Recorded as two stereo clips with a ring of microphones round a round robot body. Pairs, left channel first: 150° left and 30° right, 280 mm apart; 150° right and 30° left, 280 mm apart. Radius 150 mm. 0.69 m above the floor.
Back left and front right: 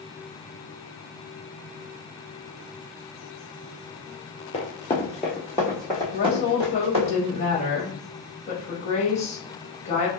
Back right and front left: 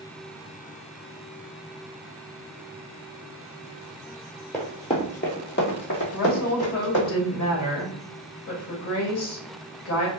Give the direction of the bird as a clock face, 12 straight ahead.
I don't hear a bird.